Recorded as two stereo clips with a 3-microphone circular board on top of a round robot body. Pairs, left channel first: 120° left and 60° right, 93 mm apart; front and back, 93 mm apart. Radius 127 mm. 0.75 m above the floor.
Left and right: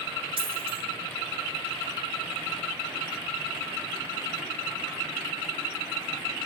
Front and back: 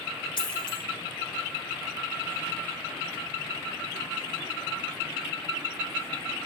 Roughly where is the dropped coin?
Ahead right.